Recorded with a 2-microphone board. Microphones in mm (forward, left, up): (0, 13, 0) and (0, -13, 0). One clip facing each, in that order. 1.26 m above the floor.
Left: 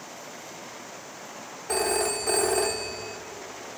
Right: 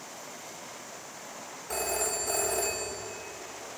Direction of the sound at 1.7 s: 70° left (ahead or behind).